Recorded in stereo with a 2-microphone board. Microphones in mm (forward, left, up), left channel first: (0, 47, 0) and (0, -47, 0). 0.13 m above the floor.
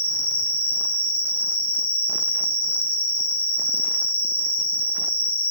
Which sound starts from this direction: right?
An insect, at 0.0 s.